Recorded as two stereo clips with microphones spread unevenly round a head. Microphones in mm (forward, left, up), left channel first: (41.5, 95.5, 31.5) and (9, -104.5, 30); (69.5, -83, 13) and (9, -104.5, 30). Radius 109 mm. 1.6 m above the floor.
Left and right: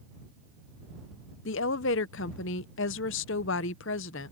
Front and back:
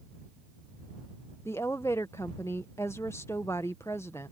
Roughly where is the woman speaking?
Left.